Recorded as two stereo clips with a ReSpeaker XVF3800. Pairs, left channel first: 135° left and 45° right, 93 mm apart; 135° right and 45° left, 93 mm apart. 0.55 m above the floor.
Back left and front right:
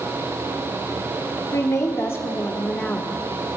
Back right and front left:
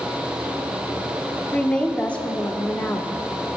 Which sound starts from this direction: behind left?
A woman speaking, at 1.5 s.